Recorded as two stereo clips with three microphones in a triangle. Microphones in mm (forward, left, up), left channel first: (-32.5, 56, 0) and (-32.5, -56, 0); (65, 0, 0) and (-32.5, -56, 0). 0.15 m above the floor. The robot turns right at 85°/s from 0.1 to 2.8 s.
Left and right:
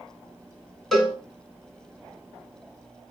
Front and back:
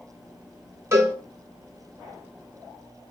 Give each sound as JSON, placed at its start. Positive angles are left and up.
{"t": 0.9, "sound": "a cowbell", "azimuth_deg": 180, "distance_m": 1.3}